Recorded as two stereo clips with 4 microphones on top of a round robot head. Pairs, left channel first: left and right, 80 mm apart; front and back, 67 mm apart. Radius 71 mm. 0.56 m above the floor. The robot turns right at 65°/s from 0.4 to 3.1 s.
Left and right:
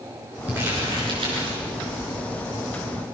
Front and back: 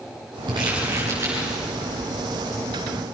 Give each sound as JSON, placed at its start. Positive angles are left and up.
{"t": 0.5, "sound": "crumpling", "azimuth_deg": -165, "distance_m": 9.5}